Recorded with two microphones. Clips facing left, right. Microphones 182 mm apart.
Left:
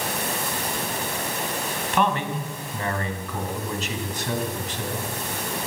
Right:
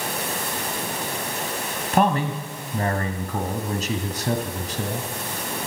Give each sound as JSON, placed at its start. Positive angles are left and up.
{"t": 1.9, "sound": "a man speaking", "side_deg": -40, "distance_m": 1.4}